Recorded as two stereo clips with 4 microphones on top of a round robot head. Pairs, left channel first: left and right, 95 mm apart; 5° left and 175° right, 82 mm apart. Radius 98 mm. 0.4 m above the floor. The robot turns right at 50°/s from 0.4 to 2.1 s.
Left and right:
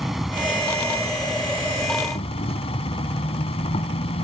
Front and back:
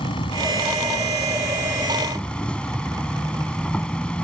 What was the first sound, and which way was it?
An insect, straight ahead.